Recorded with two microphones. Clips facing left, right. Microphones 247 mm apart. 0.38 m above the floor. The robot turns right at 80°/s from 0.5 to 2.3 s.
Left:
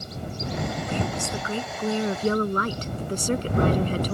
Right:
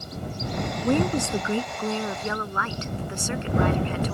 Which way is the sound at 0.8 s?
75° right.